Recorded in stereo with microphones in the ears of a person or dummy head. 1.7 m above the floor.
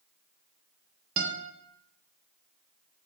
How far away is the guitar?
About 1.3 m.